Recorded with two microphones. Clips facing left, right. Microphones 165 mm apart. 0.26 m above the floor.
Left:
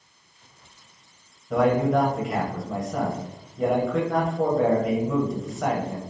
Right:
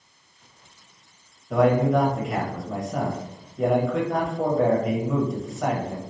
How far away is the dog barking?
No dog barking in this recording.